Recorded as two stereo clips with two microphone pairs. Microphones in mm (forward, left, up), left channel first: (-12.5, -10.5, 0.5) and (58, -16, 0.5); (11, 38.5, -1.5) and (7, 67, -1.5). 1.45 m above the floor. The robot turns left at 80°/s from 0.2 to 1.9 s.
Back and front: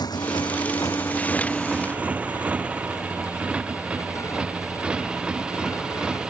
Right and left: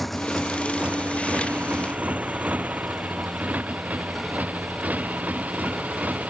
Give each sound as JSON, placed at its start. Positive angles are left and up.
{"t": 0.0, "sound": "a motorcycle", "azimuth_deg": -170}